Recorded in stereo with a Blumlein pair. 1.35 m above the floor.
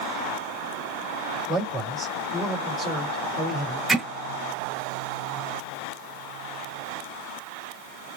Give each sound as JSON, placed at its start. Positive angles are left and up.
{"t": 1.5, "sound": "a man speaking", "azimuth_deg": -10, "distance_m": 3.5}
{"t": 3.9, "sound": "hammering", "azimuth_deg": -5, "distance_m": 5.0}